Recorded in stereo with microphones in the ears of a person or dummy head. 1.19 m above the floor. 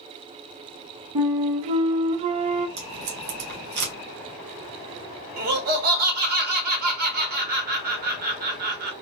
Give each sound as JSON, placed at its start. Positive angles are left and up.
{"t": 1.1, "sound": "a flute", "side_deg": -35, "distance_m": 0.7}
{"t": 2.8, "sound": "tape being pulled", "side_deg": -40, "distance_m": 1.8}
{"t": 5.4, "sound": "laughter", "side_deg": -50, "distance_m": 0.9}